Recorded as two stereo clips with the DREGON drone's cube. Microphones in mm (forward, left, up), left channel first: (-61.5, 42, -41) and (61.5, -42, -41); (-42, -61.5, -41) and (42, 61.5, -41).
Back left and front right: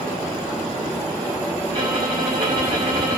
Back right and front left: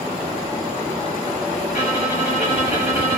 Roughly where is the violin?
Right.